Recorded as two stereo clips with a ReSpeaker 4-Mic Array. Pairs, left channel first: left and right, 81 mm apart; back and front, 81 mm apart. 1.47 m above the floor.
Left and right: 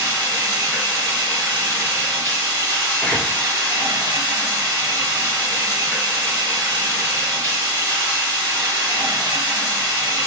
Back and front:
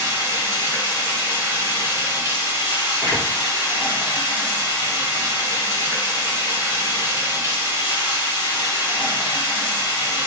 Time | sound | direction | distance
0.0 | running water | 40° left | 1.9 m
3.0 | a door slam | 25° left | 1.0 m